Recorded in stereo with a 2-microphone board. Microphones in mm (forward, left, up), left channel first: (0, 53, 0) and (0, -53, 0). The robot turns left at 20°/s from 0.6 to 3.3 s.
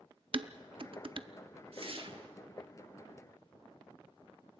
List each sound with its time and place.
0.3 s dishes clattering: 55° right (ahead or behind), 0.6 m; by 1.3 s 50° right (ahead or behind), 0.6 m
1.7 s a whoosh: 60° right (ahead or behind), 1.0 m; by 2.3 s 50° right (ahead or behind), 1.0 m